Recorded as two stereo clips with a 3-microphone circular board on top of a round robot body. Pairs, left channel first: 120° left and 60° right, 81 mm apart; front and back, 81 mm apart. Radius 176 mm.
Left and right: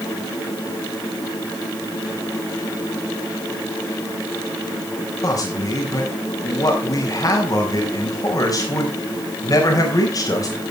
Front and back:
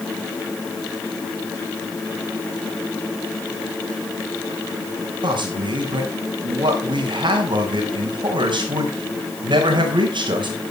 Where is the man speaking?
160° left, 4 m.